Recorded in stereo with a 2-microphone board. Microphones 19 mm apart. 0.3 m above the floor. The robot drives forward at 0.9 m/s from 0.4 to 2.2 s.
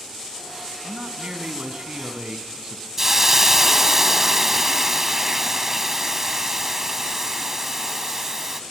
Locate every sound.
0.8 s a man speaking: 60° right (ahead or behind), 3 m
3.0 s a hiss: 20° right (ahead or behind), 1.7 m